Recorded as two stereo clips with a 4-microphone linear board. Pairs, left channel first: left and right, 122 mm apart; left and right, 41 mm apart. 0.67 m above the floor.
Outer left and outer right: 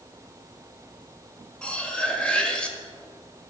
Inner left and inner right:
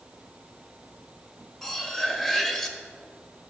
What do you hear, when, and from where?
1.6 s cutlery clinking: 10° left (ahead or behind), 1.6 m